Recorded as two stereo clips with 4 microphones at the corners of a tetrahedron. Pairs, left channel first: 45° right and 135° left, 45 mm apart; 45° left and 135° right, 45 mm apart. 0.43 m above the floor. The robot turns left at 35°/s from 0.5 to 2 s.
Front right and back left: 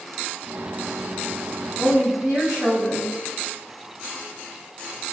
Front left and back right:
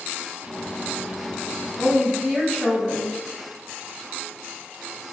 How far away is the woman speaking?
About 1.8 m.